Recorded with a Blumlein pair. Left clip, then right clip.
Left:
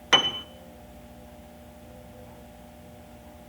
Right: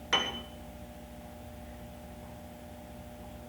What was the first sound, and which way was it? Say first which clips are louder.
A piano: left 9 dB; 65° left.